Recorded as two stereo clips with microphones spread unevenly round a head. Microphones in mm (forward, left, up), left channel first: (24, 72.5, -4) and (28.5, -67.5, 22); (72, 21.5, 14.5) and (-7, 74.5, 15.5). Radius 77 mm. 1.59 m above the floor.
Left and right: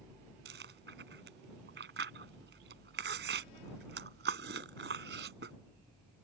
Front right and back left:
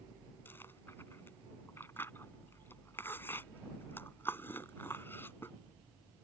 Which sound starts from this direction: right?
Chewing, at 0.5 s.